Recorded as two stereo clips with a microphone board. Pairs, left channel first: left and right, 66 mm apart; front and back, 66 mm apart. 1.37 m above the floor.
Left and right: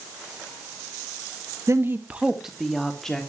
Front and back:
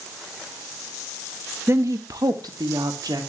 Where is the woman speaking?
130° right, 1.1 m; by 3.3 s 170° left, 3 m.